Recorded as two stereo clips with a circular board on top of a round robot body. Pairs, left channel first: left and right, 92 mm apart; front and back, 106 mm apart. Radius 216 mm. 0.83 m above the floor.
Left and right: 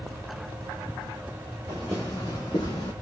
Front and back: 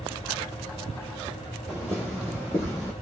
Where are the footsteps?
90° right, 0.8 m; by 2.9 s 85° left, 0.9 m.